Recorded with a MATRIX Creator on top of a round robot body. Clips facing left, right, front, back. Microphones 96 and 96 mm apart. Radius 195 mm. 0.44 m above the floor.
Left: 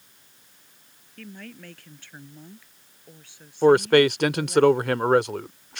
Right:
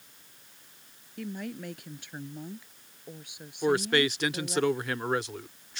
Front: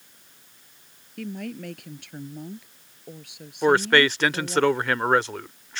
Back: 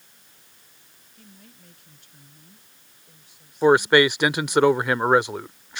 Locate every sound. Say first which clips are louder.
1.2 s a woman speaking: right 5 dB, front 19 dB; 15° right
3.6 s a man speaking: left 9 dB, back 3 dB; 105° left